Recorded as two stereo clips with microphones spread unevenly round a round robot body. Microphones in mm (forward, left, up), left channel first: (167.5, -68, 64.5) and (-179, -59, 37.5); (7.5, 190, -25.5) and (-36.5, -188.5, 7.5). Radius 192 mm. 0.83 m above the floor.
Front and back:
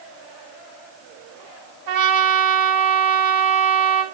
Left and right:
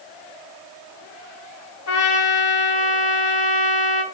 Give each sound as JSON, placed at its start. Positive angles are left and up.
{"t": 1.9, "sound": "a trumpet", "azimuth_deg": 135, "distance_m": 3.5}